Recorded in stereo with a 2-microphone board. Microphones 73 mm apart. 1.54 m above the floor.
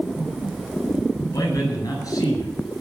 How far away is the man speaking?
About 9.5 m.